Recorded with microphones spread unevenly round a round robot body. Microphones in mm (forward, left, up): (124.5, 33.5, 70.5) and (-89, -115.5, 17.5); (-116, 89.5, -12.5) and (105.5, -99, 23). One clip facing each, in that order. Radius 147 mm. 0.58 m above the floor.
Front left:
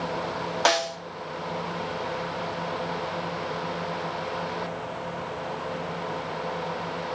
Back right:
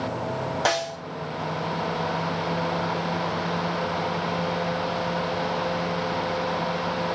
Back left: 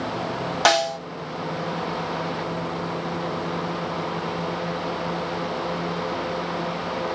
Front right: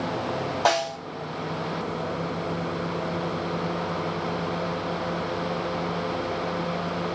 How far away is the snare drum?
About 0.9 m.